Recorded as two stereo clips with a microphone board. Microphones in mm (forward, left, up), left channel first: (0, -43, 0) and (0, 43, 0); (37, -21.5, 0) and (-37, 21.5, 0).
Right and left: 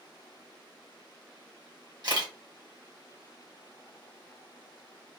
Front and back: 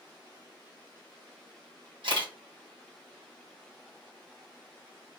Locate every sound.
2.0 s a camera shutter: 125° left, 1.5 m